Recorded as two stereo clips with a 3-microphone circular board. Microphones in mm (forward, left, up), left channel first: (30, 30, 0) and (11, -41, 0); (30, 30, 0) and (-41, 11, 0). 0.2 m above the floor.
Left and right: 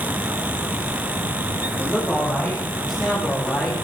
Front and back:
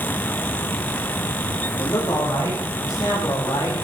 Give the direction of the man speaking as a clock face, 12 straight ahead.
12 o'clock.